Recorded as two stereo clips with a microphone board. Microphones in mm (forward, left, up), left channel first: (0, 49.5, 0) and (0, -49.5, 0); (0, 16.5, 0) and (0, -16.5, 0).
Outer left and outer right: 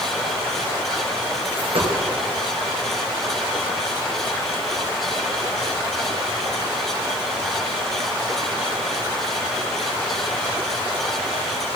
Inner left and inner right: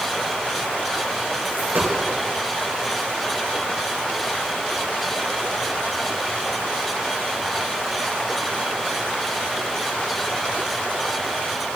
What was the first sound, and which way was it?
A dropped coin, 70° right (ahead or behind).